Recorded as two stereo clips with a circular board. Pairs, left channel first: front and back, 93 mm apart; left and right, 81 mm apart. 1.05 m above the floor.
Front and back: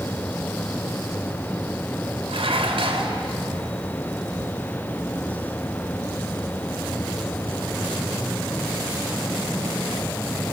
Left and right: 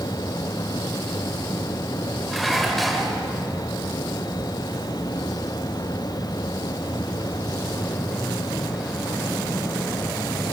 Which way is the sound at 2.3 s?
Straight behind.